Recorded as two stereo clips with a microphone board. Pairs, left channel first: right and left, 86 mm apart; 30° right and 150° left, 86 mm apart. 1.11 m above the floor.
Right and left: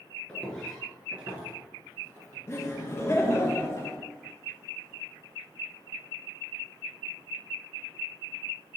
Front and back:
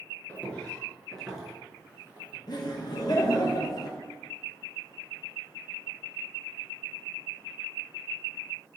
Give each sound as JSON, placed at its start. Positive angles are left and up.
{"t": 0.3, "sound": "footsteps", "azimuth_deg": -50, "distance_m": 1.1}
{"t": 2.5, "sound": "laughter", "azimuth_deg": -40, "distance_m": 0.6}